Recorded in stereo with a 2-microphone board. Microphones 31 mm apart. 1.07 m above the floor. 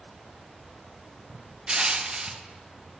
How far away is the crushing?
About 0.5 m.